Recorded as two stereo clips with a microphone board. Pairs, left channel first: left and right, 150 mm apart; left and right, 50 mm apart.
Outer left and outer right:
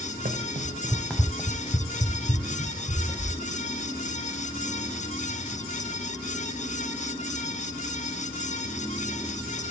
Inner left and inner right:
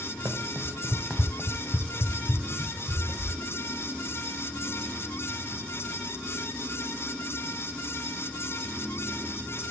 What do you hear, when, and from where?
0.2 s running footsteps: 75° right (ahead or behind), 1.1 m; by 3.3 s 50° left (ahead or behind), 3.5 m